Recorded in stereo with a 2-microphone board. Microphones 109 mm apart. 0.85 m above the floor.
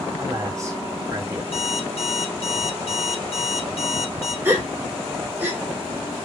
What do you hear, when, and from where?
0.2 s a man speaking: 25° right (ahead or behind), 1.6 m
1.5 s an alarm clock: 60° left (ahead or behind), 0.6 m
4.5 s a gasp: 20° right (ahead or behind), 1.3 m